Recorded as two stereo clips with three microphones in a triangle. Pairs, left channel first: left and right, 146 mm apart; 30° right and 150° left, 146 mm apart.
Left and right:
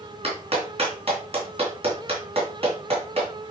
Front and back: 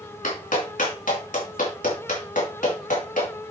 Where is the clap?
45° right, 3 m.